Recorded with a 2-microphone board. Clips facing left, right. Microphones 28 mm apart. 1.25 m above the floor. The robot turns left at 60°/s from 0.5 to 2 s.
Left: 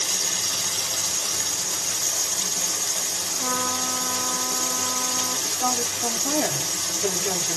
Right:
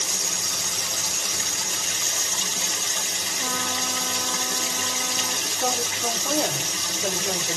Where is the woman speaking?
50° left (ahead or behind), 1.6 m.